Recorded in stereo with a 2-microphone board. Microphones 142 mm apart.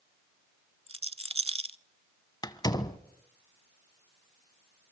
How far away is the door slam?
About 1.1 m.